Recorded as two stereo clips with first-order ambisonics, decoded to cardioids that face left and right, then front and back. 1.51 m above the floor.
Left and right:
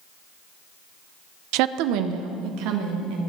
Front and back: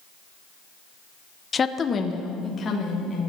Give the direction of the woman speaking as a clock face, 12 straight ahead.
2 o'clock.